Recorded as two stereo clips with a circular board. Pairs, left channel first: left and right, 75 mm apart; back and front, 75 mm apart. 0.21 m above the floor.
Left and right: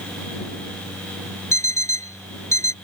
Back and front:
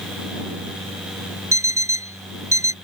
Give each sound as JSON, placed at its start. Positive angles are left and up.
{"t": 1.5, "sound": "an alarm clock", "azimuth_deg": 45}